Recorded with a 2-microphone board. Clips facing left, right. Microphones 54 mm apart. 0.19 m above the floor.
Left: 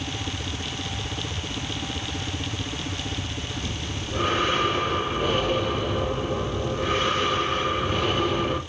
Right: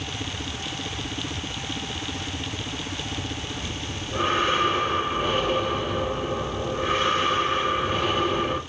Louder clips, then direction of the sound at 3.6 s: Even; 20° right (ahead or behind).